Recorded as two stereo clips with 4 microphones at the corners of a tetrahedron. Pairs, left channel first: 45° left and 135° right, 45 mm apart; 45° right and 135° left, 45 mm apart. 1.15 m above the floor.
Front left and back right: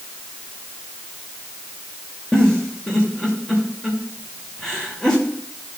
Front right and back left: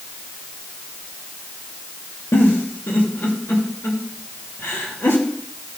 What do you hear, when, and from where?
2.3 s a giggle: 30° right, 2.5 m